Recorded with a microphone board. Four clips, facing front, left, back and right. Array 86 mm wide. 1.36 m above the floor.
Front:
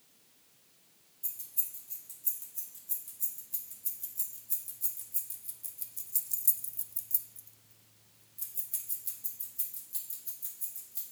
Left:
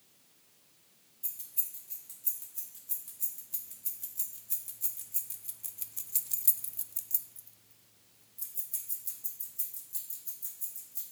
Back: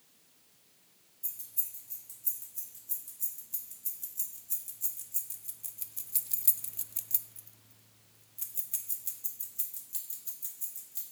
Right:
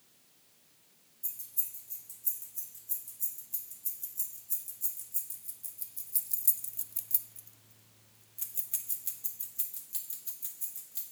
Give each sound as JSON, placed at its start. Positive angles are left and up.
{"t": 1.2, "sound": "keys jangling", "azimuth_deg": 90, "distance_m": 3.0}